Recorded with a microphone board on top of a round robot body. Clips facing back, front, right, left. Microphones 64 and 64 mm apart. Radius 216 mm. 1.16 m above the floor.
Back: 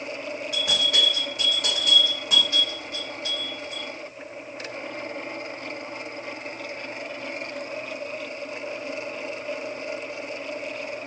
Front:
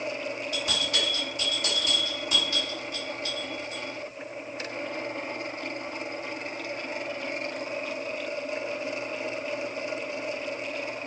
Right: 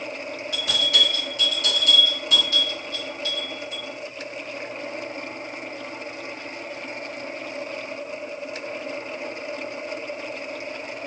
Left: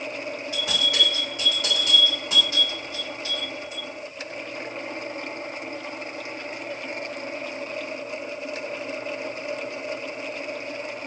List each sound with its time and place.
0.5 s a bell: 150° left, 1.6 m